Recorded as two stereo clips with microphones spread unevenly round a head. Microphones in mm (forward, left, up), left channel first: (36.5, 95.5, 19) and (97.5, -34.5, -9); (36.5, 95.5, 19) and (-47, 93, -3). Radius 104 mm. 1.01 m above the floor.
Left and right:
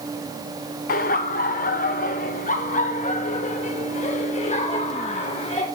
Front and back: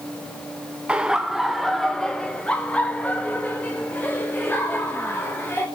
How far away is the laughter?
About 0.9 m.